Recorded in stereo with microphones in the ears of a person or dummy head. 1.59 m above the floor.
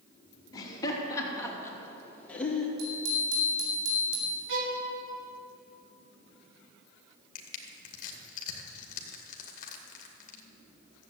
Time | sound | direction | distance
0.5 | laughter | 25° left (ahead or behind) | 3.5 m
2.8 | a bicycle bell | 80° right | 4.5 m
4.5 | a violin | 70° right (ahead or behind) | 2 m
7.3 | crushing | 50° left (ahead or behind) | 2.0 m